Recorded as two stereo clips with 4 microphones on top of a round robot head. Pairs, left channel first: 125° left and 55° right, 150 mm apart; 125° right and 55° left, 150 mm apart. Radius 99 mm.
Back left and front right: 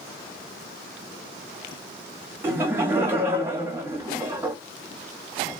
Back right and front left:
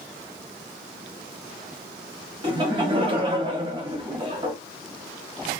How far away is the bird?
I don't hear a bird.